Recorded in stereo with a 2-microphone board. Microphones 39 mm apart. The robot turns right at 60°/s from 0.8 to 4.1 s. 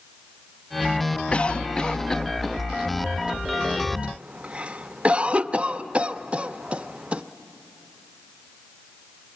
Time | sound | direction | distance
1.3 | a cough | 30° left (ahead or behind) | 0.5 m